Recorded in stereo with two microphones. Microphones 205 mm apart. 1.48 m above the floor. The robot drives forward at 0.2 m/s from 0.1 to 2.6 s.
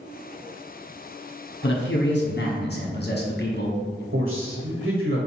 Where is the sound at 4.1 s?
80° right, 1.0 m.